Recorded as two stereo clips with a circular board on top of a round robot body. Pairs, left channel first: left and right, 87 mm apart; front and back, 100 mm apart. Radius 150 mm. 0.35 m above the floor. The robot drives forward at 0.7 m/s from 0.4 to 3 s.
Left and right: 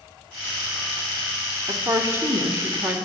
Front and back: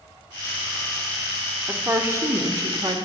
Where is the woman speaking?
120° right, 1.5 m; by 3.0 s 150° right, 2.0 m.